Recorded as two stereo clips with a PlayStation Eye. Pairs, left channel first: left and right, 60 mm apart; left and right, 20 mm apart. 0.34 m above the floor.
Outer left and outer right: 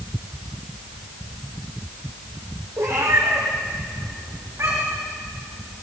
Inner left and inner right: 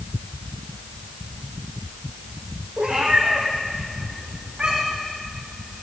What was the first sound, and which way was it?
A cat meowing, 60° right (ahead or behind).